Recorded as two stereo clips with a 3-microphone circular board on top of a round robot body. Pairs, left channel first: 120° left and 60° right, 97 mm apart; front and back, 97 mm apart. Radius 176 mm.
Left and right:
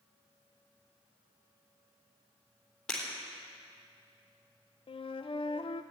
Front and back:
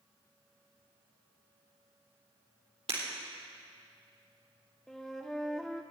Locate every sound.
2.9 s breaking glass: 160° right, 4 m
4.9 s a flute: 85° left, 0.5 m